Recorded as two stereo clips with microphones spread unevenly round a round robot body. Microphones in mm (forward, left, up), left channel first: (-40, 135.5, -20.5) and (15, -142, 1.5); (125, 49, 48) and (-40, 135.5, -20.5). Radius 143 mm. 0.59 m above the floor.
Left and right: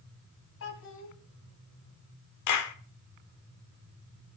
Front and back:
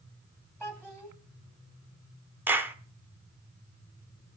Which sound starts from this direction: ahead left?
A child speaking, at 0.6 s.